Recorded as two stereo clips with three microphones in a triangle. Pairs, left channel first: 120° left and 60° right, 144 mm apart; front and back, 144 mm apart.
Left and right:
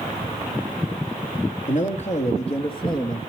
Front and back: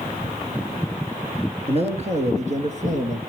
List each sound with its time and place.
1.7 s a man speaking: 140° left, 3 m; by 3.2 s straight behind, 2.5 m